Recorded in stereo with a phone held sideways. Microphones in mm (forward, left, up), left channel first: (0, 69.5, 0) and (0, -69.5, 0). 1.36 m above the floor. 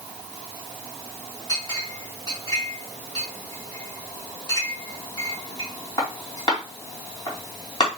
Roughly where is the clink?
Left.